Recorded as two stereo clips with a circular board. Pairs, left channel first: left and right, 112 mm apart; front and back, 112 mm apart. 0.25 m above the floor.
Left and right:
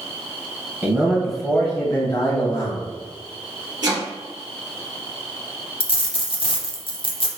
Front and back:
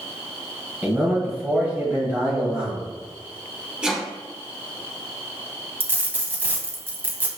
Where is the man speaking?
130° right, 1.0 m; by 2.9 s 110° left, 1.3 m.